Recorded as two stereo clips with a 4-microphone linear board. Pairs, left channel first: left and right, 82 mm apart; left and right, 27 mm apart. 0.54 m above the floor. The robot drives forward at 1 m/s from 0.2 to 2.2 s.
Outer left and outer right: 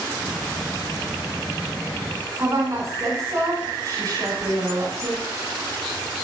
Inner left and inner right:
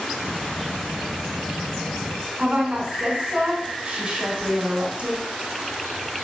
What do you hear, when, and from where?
2.4 s a woman speaking: 40° right (ahead or behind), 4 m